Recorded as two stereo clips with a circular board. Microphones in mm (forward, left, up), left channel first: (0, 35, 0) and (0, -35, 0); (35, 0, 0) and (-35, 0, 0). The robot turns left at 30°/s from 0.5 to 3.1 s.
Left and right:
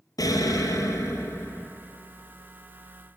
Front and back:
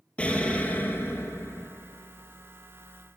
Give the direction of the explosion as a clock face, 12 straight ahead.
10 o'clock.